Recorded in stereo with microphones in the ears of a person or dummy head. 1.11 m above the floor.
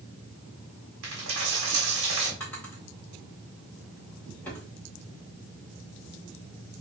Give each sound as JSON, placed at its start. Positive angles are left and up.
{"t": 1.0, "sound": "a dropped coin", "side_deg": -60, "distance_m": 1.5}
{"t": 2.4, "sound": "a drawer", "side_deg": 10, "distance_m": 1.7}